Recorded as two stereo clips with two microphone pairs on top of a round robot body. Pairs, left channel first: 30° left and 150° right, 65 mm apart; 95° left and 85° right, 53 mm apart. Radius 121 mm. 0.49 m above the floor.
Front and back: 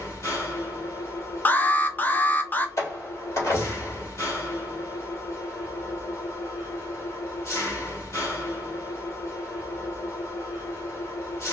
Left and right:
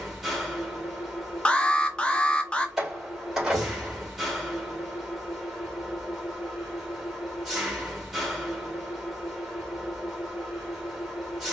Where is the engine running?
5° right, 2.5 m.